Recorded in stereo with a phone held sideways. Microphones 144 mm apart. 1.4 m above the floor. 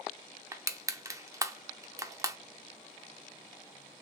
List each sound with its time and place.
0.5 s crushing: 20° right (ahead or behind), 0.6 m